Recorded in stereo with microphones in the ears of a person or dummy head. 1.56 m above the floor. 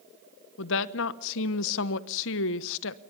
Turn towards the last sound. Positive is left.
turn(degrees=70)  # may be behind; listen again after turning